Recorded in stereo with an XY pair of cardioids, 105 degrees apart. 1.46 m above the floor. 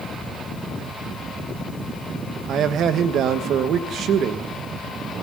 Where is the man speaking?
70° right, 1.3 m.